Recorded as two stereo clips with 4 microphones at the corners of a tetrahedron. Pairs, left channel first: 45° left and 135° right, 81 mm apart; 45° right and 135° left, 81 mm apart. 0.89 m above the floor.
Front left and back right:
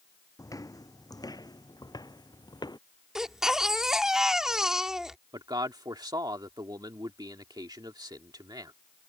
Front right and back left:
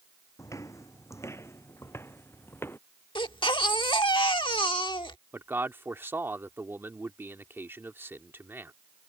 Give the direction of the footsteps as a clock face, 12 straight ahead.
12 o'clock.